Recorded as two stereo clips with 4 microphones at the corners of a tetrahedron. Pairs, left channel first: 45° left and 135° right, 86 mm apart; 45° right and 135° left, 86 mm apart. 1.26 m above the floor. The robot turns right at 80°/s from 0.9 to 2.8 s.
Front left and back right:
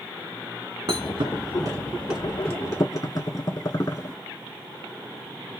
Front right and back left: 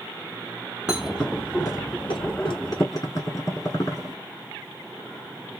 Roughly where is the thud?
Behind right.